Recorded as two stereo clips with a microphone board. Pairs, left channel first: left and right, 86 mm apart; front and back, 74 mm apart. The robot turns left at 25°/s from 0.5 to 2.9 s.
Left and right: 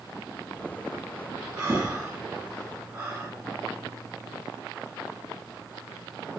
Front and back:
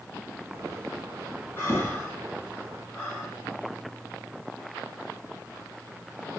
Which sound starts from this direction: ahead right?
Breathing, at 1.6 s.